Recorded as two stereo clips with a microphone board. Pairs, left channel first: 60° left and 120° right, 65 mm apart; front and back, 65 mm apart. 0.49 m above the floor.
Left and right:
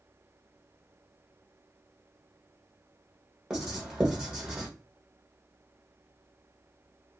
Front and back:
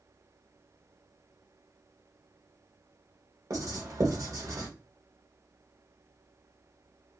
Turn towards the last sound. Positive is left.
turn(degrees=160)